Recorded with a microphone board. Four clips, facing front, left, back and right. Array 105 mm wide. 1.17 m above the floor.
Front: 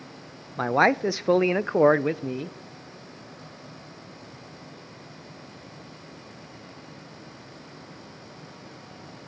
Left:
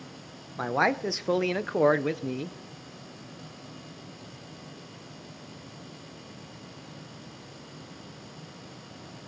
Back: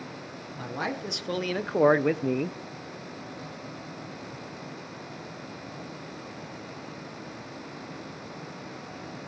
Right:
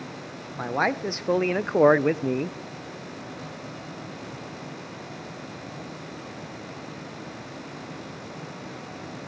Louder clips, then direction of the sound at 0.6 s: Even, front 12 dB; 5° left.